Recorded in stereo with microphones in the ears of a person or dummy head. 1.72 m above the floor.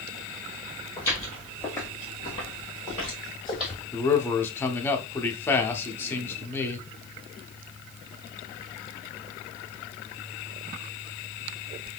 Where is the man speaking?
15° left (ahead or behind), 0.6 m.